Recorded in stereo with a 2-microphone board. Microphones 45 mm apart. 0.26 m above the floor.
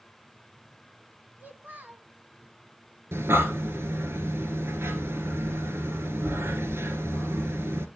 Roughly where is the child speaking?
Right.